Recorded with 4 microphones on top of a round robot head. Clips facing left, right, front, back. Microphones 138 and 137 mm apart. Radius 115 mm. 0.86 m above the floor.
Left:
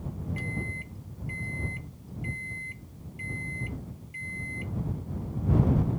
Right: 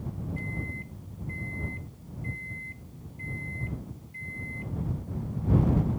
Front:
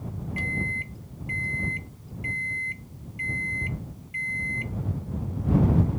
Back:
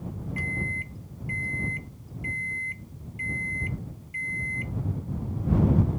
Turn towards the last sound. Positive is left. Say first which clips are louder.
# left 1 dB, front 1 dB
turn(degrees=60)